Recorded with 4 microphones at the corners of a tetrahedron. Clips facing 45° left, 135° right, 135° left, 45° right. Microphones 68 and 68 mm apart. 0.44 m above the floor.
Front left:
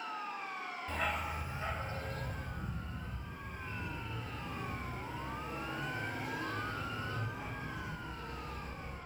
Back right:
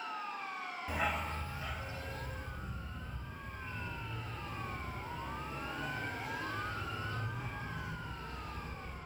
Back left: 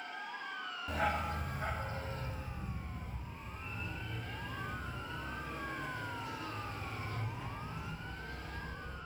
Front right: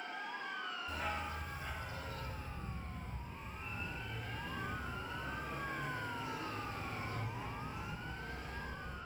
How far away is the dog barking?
About 0.9 m.